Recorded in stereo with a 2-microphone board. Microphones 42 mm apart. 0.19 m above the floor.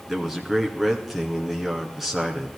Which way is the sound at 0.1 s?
5° right (ahead or behind).